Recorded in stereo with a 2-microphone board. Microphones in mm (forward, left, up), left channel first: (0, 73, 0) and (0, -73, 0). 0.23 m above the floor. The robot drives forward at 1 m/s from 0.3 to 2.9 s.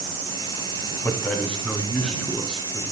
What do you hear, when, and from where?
1.0 s a man speaking: 10° left (ahead or behind), 1.1 m; by 2.8 s 5° left (ahead or behind), 2.5 m